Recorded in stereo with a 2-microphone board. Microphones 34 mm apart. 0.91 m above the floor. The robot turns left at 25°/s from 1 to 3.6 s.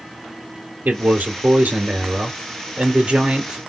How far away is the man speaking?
About 2 m.